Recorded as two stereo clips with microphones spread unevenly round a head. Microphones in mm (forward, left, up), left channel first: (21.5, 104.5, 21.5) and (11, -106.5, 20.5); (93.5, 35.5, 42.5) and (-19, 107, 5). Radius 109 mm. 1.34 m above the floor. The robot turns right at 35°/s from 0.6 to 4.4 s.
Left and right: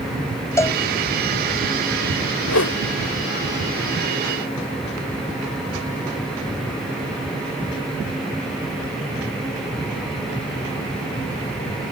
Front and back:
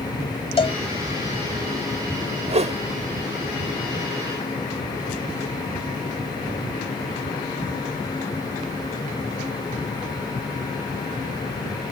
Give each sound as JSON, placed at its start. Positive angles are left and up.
{"t": 0.6, "sound": "a cowbell", "azimuth_deg": 10}
{"t": 2.5, "sound": "a whoosh", "azimuth_deg": 105}